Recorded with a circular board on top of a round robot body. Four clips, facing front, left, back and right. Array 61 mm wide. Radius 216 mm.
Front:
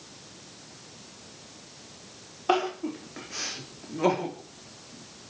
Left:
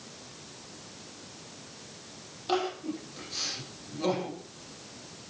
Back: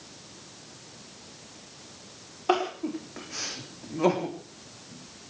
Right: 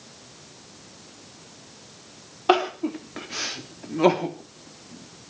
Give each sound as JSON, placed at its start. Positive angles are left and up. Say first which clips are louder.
{"t": 2.5, "sound": "crying", "louder": "right 9 dB, even", "azimuth_deg": -90, "distance_m": 3.5}